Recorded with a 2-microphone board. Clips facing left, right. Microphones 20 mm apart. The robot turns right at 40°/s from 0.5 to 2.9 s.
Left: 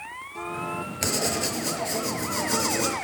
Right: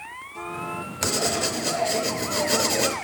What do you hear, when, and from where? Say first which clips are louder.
1.0 s writing: right 3 dB; straight behind, 0.9 m; by 3.0 s 105° right, 0.9 m